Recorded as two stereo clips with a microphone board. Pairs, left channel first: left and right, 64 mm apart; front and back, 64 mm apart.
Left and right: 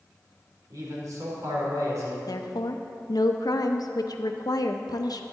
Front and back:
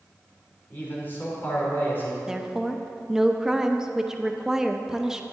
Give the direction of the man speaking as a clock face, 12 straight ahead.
2 o'clock.